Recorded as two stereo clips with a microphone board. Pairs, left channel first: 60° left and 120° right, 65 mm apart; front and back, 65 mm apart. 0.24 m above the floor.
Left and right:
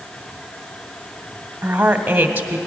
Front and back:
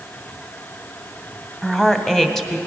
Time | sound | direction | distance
1.6 | a woman speaking | 80° right | 1.1 m